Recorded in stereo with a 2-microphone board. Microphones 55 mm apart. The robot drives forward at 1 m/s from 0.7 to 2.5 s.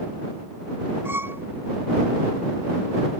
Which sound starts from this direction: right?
A violin, at 1.1 s.